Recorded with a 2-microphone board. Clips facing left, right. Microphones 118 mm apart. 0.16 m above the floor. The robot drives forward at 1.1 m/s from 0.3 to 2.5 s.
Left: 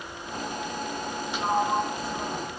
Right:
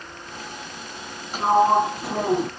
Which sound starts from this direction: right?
A sliding door, at 1.3 s.